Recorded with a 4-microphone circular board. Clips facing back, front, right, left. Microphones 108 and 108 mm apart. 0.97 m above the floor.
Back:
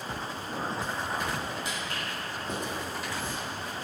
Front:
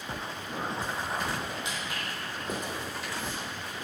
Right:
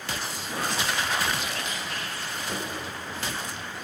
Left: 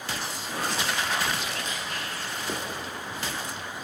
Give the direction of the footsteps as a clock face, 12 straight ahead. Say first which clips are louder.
Back 1 dB, even; 10 o'clock.